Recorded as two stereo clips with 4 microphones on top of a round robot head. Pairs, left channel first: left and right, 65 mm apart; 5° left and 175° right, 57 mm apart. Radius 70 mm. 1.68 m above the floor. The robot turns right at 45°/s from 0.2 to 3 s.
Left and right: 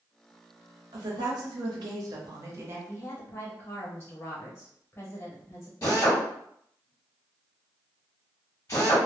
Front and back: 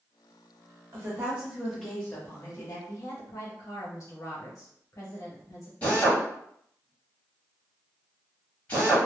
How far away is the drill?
About 1.2 m.